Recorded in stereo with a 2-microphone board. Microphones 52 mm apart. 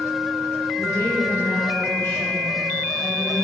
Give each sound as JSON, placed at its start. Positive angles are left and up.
{"t": 0.8, "sound": "a woman speaking", "side_deg": 60, "distance_m": 5.0}